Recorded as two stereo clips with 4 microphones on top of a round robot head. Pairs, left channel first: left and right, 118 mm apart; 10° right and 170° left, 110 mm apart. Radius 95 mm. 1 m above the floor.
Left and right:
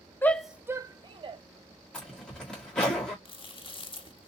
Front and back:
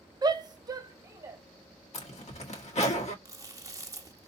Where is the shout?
150° left, 0.7 m; by 1.4 s 125° right, 1.3 m.